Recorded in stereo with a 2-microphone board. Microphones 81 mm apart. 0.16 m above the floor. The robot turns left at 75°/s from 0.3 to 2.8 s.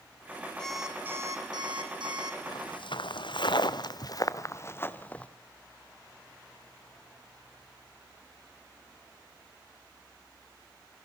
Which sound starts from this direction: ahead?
An alarm clock, at 0.6 s.